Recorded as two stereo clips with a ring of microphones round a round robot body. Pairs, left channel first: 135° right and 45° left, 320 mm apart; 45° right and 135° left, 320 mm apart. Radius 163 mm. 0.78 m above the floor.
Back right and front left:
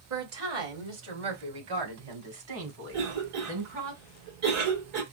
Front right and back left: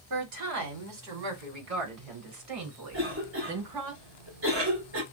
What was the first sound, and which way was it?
A woman speaking, 95° left.